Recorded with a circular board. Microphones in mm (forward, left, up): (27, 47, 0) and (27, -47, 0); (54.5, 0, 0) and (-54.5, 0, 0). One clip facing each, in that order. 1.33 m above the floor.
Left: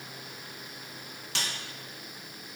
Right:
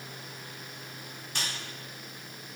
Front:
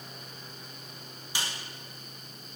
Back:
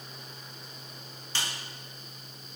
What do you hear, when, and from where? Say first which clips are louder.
1.4 s a snare drum: left 1 dB, even; 75° left, 1.3 m